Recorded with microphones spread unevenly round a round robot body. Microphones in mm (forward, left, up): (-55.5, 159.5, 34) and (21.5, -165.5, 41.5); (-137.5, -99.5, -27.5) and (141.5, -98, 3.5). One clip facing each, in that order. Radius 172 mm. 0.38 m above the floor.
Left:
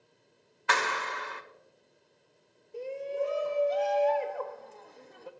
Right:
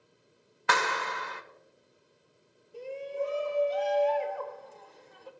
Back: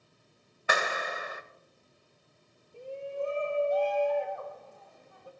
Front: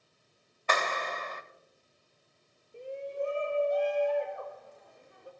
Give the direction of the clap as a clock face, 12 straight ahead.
3 o'clock.